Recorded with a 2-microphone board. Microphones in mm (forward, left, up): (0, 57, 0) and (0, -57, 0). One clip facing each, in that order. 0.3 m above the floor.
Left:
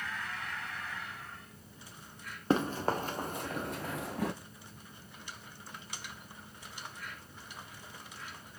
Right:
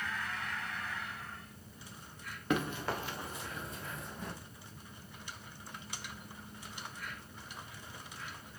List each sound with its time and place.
2.5 s running footsteps: 30° left (ahead or behind), 1.6 m; by 4.3 s 75° left (ahead or behind), 1.1 m